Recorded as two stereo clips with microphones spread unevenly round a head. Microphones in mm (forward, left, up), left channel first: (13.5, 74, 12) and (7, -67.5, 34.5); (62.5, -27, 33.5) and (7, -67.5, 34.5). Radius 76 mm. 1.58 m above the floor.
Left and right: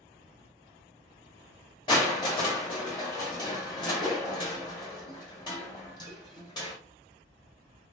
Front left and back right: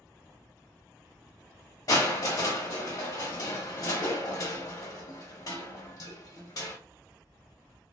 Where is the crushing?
25° left, 0.8 m.